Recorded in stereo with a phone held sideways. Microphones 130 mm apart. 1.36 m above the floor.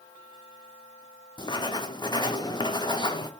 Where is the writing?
35° left (ahead or behind), 0.5 m.